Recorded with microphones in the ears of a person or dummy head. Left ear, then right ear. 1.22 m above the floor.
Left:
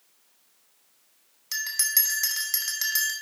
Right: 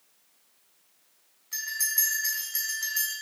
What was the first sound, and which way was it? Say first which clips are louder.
A bell: left 3 dB; 75° left (ahead or behind).